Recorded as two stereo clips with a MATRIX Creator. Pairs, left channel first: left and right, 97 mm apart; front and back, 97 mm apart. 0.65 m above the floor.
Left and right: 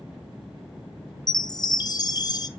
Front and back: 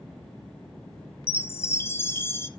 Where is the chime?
60° left, 0.7 m.